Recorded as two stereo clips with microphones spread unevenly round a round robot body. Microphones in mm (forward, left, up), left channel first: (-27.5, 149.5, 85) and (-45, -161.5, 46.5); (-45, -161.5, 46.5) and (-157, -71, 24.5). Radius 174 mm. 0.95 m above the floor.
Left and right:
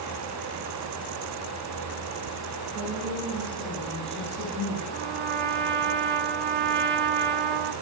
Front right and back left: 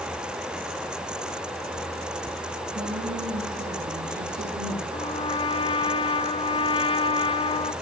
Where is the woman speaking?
165° left, 6.5 m; by 4.8 s 155° left, 9 m.